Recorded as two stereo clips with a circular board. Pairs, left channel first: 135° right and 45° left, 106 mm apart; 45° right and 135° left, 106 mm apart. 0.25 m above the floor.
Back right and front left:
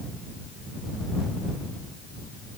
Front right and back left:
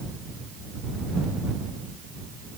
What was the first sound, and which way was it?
Only background noise.